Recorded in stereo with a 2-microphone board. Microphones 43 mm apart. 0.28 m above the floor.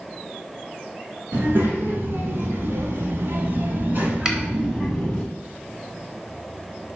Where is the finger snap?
15° right (ahead or behind), 1.3 m.